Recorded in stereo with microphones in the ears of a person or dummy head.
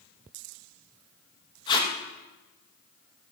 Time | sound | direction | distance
1.7 | tape being pulled | 25° left (ahead or behind) | 1.9 m